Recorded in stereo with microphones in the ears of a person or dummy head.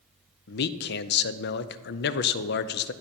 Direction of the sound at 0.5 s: 50° left (ahead or behind).